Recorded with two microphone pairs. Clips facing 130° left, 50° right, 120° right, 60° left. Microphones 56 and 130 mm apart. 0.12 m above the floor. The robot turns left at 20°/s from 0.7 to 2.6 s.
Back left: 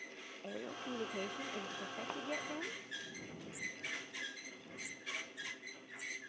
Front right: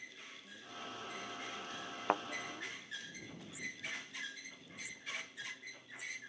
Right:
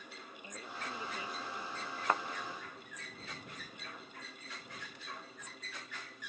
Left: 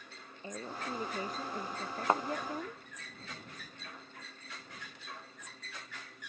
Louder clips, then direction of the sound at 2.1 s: Front right 14 dB, left 4 dB; 5° right.